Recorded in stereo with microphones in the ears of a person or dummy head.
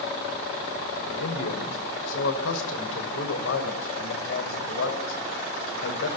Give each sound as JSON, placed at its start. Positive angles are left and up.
{"t": 1.1, "sound": "a man speaking", "side_deg": 85, "distance_m": 5.5}